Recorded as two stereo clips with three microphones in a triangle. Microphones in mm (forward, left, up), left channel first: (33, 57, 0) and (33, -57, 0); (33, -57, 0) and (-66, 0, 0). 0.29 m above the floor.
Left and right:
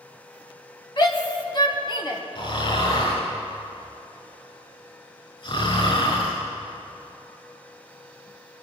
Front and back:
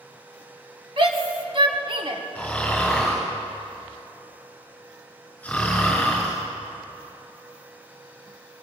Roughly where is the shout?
Behind left.